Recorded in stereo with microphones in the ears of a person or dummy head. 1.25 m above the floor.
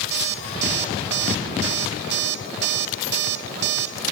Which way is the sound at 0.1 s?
60° right (ahead or behind).